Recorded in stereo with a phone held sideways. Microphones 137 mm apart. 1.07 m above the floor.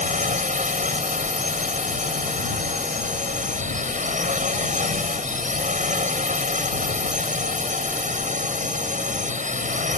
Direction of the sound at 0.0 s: 65° right (ahead or behind).